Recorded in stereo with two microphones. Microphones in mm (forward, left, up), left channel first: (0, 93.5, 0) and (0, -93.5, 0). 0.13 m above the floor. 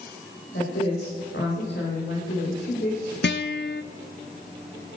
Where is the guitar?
70° left (ahead or behind), 0.6 m.